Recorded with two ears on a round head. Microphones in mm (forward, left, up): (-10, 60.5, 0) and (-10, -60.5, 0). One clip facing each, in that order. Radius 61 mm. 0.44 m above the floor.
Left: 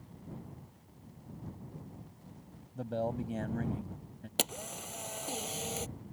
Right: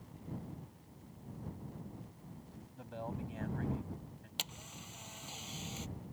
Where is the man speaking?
50° left (ahead or behind).